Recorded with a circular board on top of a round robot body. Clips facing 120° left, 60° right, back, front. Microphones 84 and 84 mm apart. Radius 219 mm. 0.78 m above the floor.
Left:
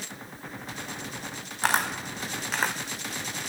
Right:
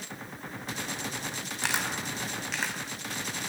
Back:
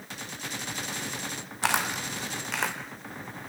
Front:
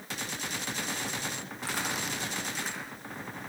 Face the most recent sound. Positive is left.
turn(degrees=170)